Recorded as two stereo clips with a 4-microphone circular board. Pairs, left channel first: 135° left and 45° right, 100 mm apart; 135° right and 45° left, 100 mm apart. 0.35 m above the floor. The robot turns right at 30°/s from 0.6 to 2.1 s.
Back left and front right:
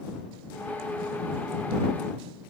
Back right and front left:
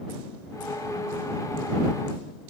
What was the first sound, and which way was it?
Only background noise.